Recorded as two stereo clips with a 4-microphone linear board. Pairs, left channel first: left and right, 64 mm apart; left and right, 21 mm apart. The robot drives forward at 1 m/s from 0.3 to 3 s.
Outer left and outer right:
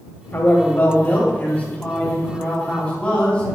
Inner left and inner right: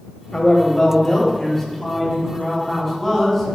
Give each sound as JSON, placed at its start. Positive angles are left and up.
{"t": 0.3, "sound": "a man speaking", "side_deg": 40, "distance_m": 2.5}